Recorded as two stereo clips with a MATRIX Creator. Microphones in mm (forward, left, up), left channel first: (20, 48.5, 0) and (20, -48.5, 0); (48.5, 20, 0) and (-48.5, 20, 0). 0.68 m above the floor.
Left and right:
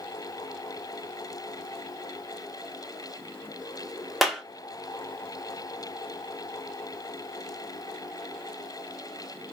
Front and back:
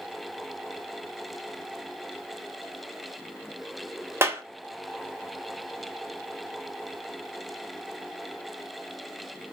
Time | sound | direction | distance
4.2 | a clap | straight behind | 0.6 m